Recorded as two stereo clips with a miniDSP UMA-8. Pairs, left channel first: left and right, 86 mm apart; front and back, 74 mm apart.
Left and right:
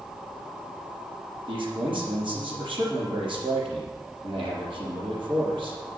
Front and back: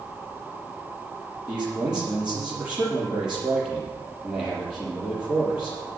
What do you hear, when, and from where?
1.5 s a man speaking: 100° right, 5.5 m